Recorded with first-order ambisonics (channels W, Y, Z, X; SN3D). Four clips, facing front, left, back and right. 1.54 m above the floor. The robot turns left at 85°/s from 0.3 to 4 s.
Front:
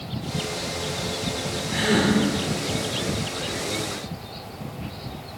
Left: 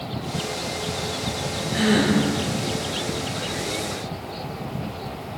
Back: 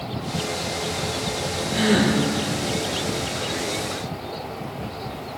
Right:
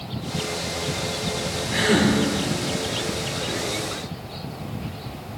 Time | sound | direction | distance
1.7 | a gasp | 65° right | 5 m